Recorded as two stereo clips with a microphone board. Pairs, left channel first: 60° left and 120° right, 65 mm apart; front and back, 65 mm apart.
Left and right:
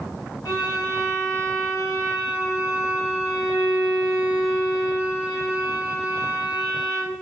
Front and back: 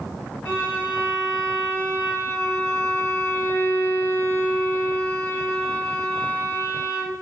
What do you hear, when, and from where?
0.5 s a violin: 60° left, 1.0 m